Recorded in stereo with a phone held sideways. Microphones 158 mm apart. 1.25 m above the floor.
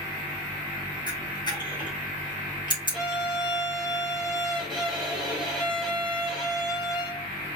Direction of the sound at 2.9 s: Centre (ahead or behind).